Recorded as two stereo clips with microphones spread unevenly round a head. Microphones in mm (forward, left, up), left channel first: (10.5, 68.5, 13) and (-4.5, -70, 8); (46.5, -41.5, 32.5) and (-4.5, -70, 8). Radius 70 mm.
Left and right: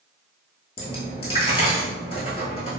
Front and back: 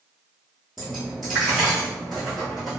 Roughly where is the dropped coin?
Left.